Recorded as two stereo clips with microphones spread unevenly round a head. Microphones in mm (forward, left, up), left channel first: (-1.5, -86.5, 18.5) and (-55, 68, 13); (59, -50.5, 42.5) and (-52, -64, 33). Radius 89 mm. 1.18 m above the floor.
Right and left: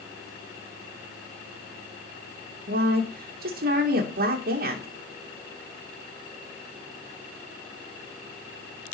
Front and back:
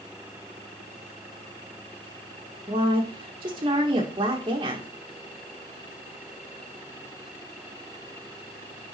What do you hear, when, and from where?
2.7 s a woman speaking: 130° left, 1.7 m